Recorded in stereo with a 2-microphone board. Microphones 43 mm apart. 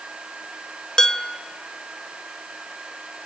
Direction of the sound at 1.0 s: 15° left (ahead or behind).